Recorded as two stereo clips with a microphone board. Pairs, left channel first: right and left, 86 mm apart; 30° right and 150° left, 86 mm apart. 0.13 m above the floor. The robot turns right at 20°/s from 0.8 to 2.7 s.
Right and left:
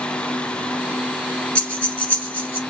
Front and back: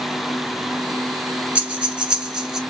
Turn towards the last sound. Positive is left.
turn(degrees=-125)